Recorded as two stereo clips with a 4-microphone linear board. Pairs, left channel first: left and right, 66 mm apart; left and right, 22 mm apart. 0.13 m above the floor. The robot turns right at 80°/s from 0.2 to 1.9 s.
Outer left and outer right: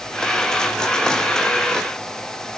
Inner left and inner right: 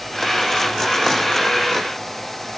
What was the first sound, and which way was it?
Only background noise.